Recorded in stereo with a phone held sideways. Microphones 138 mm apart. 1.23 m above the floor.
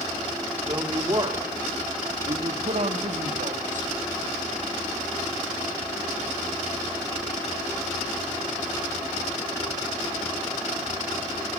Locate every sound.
0.7 s a woman speaking: 30° right (ahead or behind), 2.5 m; by 3.9 s 70° right (ahead or behind), 2 m